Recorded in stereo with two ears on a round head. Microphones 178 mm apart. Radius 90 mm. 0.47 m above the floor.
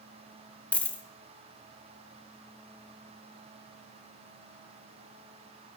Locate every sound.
0.7 s a dropped coin: 5° left (ahead or behind), 0.6 m